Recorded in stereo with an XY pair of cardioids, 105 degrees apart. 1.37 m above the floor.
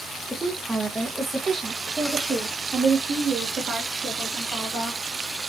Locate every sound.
0.3 s a woman speaking: straight ahead, 1.1 m; by 5.0 s 60° right, 3 m